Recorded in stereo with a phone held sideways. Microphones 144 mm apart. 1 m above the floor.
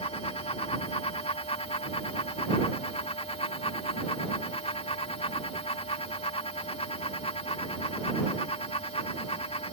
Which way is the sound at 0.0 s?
50° left (ahead or behind).